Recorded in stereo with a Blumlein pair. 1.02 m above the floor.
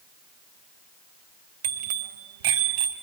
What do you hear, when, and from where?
1.6 s a bicycle bell: 55° right, 4 m; by 2.9 s 50° right, 5 m